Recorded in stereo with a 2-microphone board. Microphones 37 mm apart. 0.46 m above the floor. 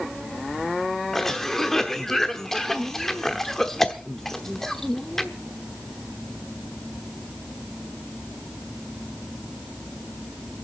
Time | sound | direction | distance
1.1 | a cough | 10° left (ahead or behind) | 0.9 m